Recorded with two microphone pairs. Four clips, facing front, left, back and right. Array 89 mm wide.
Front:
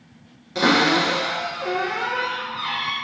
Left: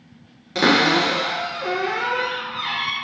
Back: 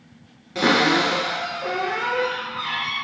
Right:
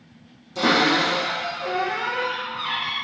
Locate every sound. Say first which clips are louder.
0.6 s a cupboard door: left 2 dB, even; 80° left, 1.3 m